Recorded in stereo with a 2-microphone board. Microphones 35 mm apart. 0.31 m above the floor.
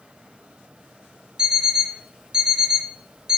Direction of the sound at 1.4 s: 25° right (ahead or behind).